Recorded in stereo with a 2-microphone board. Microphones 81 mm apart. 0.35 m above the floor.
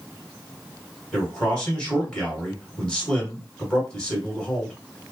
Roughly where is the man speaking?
Centre.